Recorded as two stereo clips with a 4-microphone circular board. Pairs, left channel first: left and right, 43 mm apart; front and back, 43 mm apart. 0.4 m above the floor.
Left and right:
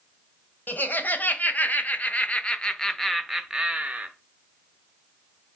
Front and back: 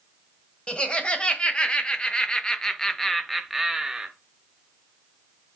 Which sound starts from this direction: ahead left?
Laughter, at 0.7 s.